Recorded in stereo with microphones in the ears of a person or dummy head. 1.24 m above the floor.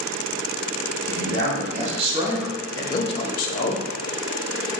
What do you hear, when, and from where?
1.1 s a man speaking: 55° right (ahead or behind), 1.2 m; by 3.8 s 60° left (ahead or behind), 1.0 m